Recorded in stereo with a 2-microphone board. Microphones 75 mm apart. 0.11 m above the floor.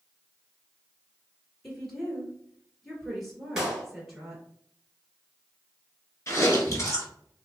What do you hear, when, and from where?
1.6 s a woman speaking: centre (ahead or behind), 1.6 m
3.6 s a clap: 10° right (ahead or behind), 1.4 m
6.3 s chewing: 40° left (ahead or behind), 1.3 m